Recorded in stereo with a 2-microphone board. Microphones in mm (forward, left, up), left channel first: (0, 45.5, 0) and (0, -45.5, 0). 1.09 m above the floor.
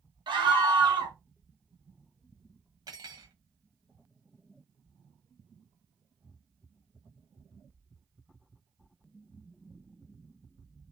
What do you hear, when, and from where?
0.3 s a scream: 65° right (ahead or behind), 1.2 m
2.9 s cutlery clinking: 50° right (ahead or behind), 1.0 m